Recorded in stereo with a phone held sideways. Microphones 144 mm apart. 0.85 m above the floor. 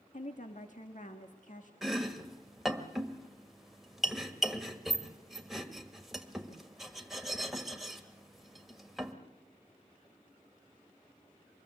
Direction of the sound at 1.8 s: Centre (ahead or behind).